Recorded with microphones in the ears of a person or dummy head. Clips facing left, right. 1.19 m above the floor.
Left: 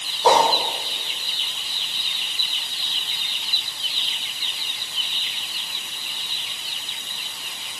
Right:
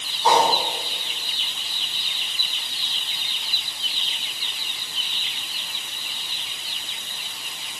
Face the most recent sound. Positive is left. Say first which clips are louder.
# left 2 dB
turn(degrees=75)  # may be behind; listen again after turning